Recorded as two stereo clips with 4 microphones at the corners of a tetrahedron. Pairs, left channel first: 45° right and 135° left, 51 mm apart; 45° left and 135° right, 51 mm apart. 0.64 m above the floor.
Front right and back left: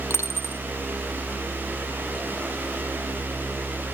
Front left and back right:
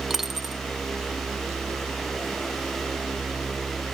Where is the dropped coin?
50° right, 0.8 m.